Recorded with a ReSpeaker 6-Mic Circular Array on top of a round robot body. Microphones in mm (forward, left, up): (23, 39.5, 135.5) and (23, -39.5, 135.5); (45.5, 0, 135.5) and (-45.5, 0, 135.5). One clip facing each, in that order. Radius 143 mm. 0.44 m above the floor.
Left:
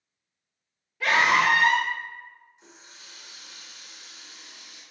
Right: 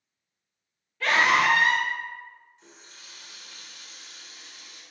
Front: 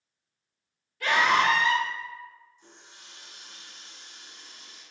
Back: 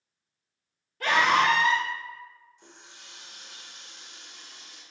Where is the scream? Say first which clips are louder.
Even, back 1 dB; 165° left, 1.3 m.